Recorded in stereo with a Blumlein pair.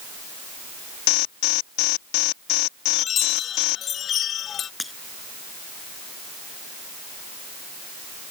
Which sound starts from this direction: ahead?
Breaking glass, at 4.8 s.